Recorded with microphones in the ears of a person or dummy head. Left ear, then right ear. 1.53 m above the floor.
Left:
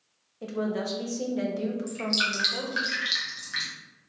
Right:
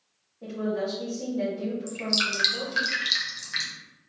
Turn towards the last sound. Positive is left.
turn(degrees=-15)  # may be behind; listen again after turning